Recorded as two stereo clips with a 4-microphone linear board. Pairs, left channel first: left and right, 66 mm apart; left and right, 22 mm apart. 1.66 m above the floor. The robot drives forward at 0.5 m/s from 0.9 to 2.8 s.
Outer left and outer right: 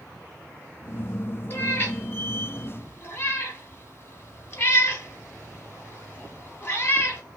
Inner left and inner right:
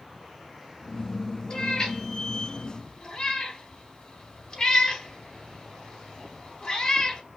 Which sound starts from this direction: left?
A cat meowing, at 1.5 s.